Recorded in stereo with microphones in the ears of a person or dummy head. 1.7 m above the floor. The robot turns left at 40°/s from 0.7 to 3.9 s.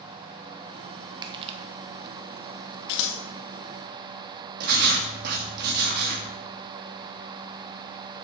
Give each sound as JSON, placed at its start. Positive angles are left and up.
{"t": 1.2, "sound": "crushing", "side_deg": -25, "distance_m": 1.0}
{"t": 2.9, "sound": "scissors", "side_deg": 65, "distance_m": 1.5}
{"t": 4.6, "sound": "writing", "side_deg": -55, "distance_m": 2.0}